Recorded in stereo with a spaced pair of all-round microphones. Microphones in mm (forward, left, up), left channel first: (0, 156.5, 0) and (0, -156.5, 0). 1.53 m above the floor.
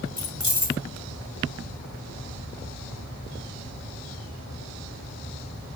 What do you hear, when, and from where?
0.2 s keys jangling: 65° left (ahead or behind), 1.0 m